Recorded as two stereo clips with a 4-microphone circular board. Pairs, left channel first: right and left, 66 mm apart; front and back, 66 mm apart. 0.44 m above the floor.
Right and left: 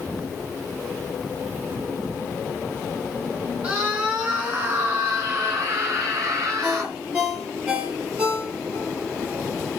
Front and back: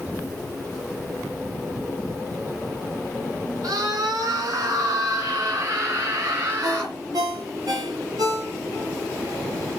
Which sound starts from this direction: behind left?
A scream, at 3.6 s.